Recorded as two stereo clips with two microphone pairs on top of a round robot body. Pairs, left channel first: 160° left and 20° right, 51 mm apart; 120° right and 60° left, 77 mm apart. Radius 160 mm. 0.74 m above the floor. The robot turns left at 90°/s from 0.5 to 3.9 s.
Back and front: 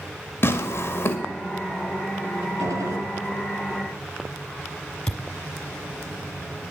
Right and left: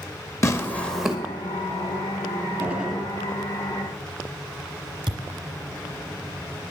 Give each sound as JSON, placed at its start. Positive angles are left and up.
{"t": 0.4, "sound": "tearing paper", "azimuth_deg": -170, "distance_m": 2.0}
{"t": 2.6, "sound": "a gunshot", "azimuth_deg": 0, "distance_m": 3.5}
{"t": 5.1, "sound": "a thud", "azimuth_deg": 80, "distance_m": 0.9}